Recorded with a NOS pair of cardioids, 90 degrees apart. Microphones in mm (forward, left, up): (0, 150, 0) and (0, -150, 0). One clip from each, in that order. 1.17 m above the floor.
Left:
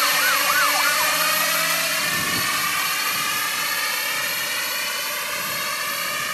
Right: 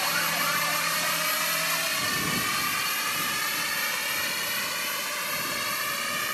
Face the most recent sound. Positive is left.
turn(degrees=30)